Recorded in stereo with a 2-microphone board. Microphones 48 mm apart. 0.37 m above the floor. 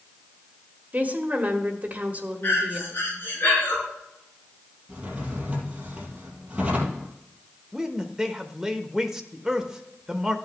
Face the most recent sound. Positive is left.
turn(degrees=-10)  # may be behind; listen again after turning